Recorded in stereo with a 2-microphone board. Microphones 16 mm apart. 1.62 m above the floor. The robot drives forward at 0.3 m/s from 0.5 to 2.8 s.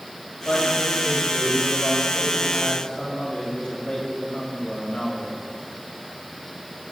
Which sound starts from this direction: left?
A man speaking, at 0.5 s.